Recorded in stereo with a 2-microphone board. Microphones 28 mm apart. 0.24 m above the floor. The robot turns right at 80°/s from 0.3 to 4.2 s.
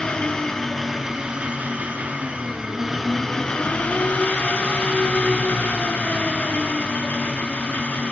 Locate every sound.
0.0 s an engine running: 145° left, 0.9 m; by 8.1 s 95° left, 0.9 m